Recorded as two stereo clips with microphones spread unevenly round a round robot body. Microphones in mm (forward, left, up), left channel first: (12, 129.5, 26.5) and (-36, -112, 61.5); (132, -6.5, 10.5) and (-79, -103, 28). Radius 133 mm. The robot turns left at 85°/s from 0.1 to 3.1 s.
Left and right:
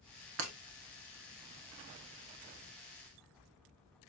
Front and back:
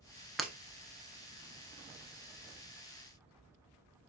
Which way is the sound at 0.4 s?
65° right.